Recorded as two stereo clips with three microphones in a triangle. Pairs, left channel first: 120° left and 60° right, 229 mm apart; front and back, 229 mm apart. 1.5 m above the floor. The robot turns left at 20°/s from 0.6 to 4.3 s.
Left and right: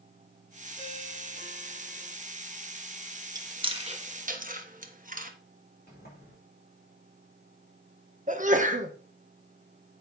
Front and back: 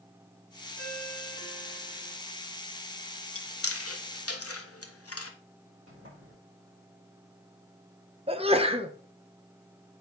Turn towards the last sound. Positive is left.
turn(degrees=-115)